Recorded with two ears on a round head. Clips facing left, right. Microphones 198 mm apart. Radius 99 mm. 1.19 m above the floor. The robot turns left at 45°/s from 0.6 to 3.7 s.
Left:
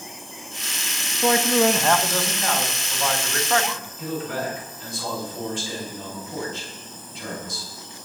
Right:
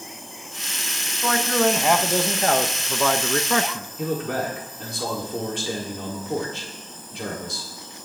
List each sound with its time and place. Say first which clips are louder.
1.2 s a man speaking: left 2 dB; 25° left, 1.0 m; by 3.9 s 90° right, 1.0 m
4.0 s a man speaking: right 3 dB; 50° right (ahead or behind), 3 m